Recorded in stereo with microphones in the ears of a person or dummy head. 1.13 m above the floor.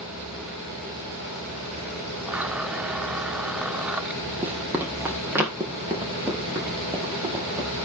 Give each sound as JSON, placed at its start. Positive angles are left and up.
{"t": 2.3, "sound": "a blender", "side_deg": -5, "distance_m": 0.6}
{"t": 4.4, "sound": "running footsteps", "side_deg": -5, "distance_m": 3.5}